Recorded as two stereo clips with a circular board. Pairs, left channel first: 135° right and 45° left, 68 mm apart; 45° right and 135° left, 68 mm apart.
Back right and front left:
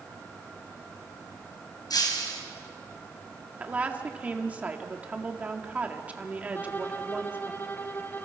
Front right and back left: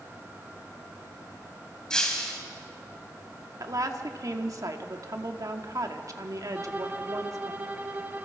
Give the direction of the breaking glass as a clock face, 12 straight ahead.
4 o'clock.